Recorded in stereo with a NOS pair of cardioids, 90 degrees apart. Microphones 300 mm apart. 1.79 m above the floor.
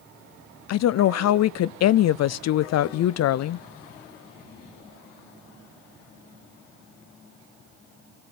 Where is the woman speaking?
65° left, 0.6 m.